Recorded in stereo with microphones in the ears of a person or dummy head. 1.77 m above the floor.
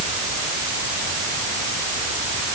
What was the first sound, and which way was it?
Only background noise.